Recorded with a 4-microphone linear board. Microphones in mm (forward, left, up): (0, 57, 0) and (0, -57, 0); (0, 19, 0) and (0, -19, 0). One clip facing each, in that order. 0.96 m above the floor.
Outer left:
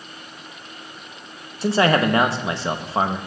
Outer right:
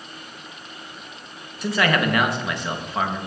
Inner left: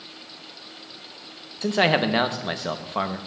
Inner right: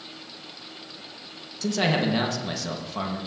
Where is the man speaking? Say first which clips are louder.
Outer left 4 dB, inner left 4 dB; 30° left (ahead or behind), 0.7 m.